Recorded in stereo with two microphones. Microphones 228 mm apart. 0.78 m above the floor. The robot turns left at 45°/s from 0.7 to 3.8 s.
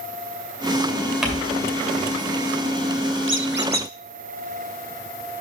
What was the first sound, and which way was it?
Crumpling, 5° right (ahead or behind).